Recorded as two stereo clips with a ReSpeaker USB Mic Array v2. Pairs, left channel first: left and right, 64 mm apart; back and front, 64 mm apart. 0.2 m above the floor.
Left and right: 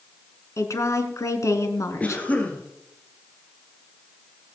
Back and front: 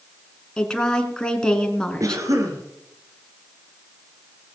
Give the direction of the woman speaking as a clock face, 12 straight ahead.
9 o'clock.